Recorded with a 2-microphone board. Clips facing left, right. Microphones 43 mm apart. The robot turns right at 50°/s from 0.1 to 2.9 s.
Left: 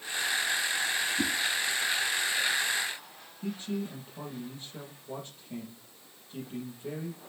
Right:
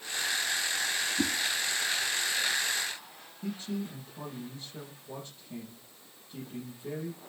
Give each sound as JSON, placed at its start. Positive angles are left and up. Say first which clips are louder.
{"t": 1.2, "sound": "a whoosh", "louder": "right 2 dB", "side_deg": -30, "distance_m": 1.2}
{"t": 3.4, "sound": "a man speaking", "louder": "left 1 dB", "side_deg": 40, "distance_m": 6.0}